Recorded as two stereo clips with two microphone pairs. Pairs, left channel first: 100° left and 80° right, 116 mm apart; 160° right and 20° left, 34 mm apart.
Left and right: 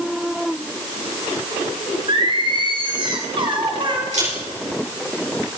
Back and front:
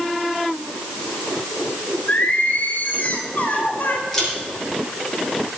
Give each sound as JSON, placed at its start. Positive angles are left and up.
{"t": 2.1, "sound": "singing", "azimuth_deg": -125, "distance_m": 1.7}
{"t": 4.1, "sound": "a camera shutter", "azimuth_deg": -80, "distance_m": 5.5}